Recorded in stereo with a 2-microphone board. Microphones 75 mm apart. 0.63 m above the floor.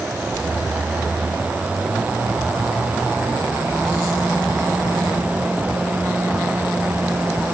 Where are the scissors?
I don't hear scissors.